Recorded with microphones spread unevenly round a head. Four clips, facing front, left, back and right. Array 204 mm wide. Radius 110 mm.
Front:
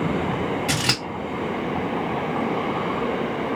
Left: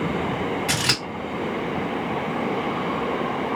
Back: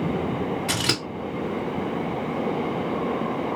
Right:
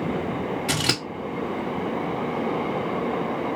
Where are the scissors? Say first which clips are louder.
Even, front 1 dB; 20° right, 1.7 m.